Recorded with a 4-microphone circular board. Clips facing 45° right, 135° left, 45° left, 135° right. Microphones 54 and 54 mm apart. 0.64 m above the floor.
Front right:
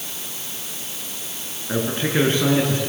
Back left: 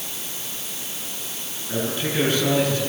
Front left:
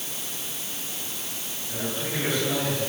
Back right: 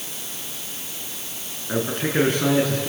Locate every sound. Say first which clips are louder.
1.7 s a man speaking: front right 3 dB, back right 8 dB; 100° right, 7.5 m